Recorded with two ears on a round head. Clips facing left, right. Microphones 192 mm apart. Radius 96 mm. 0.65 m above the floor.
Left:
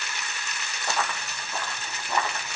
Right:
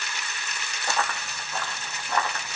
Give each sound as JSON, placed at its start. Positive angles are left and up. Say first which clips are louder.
{"t": 0.9, "sound": "running footsteps", "louder": "right 1 dB", "side_deg": 0, "distance_m": 2.5}